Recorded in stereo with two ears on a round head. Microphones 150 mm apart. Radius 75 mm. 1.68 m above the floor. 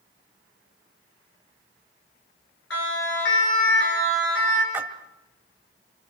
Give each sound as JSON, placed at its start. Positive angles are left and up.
{"t": 2.7, "sound": "a siren", "side_deg": 80, "distance_m": 7.5}
{"t": 4.7, "sound": "a splash", "side_deg": -15, "distance_m": 1.9}